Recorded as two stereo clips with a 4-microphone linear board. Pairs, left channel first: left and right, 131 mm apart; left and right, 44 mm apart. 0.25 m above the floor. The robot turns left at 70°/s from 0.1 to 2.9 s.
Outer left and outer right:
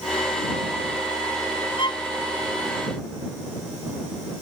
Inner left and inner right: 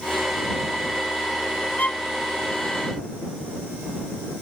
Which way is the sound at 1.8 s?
40° left (ahead or behind).